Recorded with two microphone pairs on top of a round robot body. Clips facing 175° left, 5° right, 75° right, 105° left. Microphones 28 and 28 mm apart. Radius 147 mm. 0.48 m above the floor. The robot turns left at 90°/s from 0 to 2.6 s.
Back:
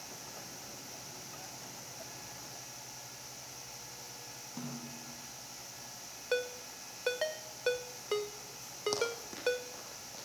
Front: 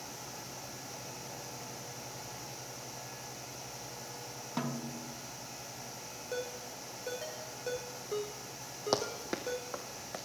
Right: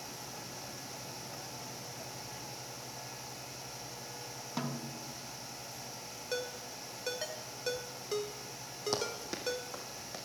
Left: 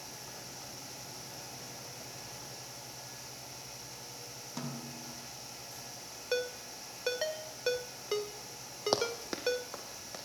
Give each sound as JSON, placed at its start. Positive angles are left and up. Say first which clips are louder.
{"t": 4.6, "sound": "a snare drum", "louder": "front 7 dB, right 3 dB", "azimuth_deg": -10, "distance_m": 1.6}
{"t": 6.3, "sound": "a ringtone", "louder": "back 5 dB, left 4 dB", "azimuth_deg": 175, "distance_m": 1.5}
{"t": 8.9, "sound": "running footsteps", "louder": "front 6 dB, left 4 dB", "azimuth_deg": 55, "distance_m": 1.1}